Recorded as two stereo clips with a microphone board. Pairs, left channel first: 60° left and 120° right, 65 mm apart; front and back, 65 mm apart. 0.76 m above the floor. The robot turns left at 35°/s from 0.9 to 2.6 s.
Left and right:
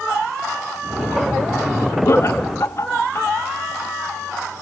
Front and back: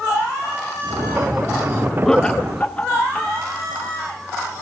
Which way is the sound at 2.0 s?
80° left.